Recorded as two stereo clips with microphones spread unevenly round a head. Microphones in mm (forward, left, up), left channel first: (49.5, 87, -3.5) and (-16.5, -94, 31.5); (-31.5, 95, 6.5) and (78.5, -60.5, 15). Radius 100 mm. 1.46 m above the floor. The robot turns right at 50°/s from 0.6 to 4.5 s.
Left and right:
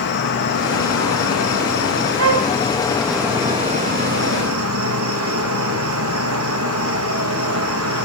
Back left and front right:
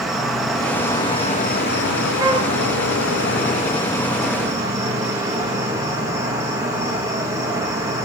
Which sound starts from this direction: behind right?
A flute, at 2.2 s.